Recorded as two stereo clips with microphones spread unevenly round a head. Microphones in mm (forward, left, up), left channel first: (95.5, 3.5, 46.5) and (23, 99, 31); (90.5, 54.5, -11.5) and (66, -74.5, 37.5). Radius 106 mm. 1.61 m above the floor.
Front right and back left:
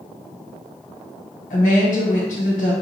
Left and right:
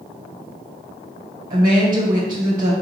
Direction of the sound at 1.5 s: 90° right.